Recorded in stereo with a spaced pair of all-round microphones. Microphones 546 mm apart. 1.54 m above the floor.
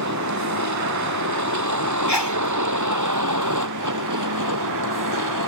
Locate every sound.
0.0 s a vehicle: 30° right (ahead or behind); by 5.5 s 35° right (ahead or behind)
2.1 s a sneeze: 45° left (ahead or behind)